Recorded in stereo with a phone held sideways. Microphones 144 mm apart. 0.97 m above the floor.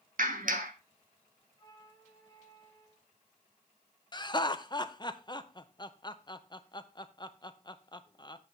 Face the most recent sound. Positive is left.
turn(degrees=30)  # may be behind; listen again after turning